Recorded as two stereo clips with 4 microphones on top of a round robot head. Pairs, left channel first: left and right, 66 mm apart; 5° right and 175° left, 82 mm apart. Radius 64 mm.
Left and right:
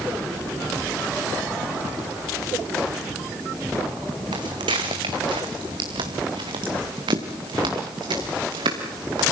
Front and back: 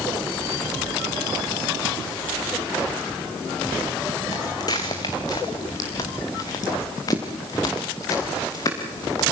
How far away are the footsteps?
About 1.7 m.